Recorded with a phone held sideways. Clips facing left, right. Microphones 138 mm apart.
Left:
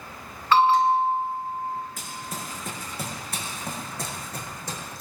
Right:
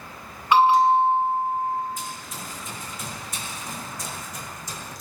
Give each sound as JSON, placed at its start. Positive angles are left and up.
{"t": 0.5, "sound": "a bell", "side_deg": -15, "distance_m": 2.0}
{"t": 2.0, "sound": "running footsteps", "side_deg": 65, "distance_m": 4.5}